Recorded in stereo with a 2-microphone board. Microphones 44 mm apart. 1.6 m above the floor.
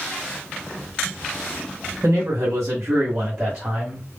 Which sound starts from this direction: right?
A man speaking, at 2.0 s.